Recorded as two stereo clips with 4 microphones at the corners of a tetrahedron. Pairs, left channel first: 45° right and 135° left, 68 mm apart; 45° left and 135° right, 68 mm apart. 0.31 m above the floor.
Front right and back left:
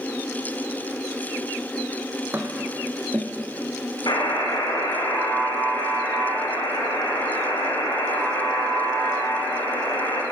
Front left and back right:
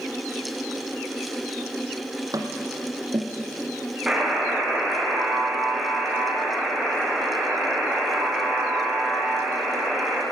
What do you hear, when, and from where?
2.3 s tapping: 165° right, 2.5 m
4.1 s a buzzer: 50° right, 8.5 m